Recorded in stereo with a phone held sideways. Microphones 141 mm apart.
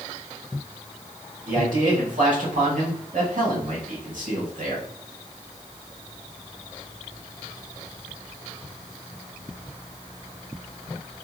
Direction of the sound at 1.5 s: 65° right (ahead or behind).